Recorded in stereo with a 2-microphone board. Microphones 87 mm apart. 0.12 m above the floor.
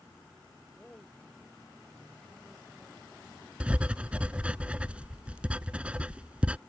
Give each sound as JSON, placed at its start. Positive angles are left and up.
{"t": 0.8, "sound": "a man speaking", "side_deg": 10}
{"t": 3.6, "sound": "writing", "side_deg": -15}